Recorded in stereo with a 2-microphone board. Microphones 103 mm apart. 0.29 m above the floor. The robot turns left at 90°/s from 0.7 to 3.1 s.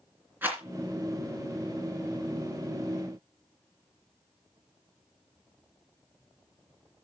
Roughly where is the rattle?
Centre.